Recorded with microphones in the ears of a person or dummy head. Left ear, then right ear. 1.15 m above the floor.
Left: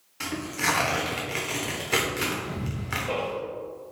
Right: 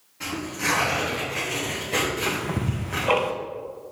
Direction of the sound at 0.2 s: 55° left (ahead or behind).